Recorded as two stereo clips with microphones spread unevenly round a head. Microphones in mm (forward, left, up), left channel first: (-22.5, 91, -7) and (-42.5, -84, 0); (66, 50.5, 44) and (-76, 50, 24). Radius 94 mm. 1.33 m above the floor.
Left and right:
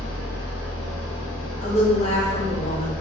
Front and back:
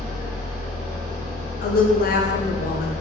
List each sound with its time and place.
0.0 s an engine running: 160° left, 1.7 m
1.6 s a woman speaking: 20° left, 0.5 m